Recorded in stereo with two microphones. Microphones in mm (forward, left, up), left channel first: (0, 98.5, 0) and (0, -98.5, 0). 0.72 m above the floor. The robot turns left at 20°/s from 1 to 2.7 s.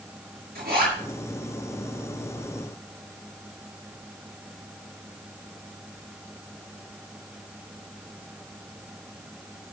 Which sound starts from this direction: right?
A zipper, at 0.6 s.